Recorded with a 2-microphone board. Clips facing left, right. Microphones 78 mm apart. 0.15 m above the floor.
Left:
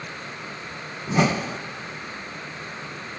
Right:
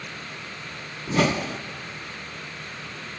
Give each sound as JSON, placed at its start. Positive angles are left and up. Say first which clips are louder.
{"t": 1.1, "sound": "a whoosh", "louder": "left 1 dB", "side_deg": 10, "distance_m": 0.6}